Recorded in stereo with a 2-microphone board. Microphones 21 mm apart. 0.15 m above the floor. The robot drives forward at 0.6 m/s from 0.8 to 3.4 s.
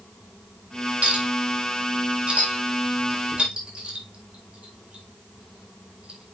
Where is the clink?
70° right (ahead or behind), 4 m; by 6.3 s 55° right (ahead or behind), 4.5 m.